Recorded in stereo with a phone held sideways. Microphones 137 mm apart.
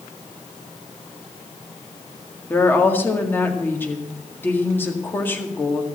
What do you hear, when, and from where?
2.5 s a woman speaking: 15° left (ahead or behind), 1.9 m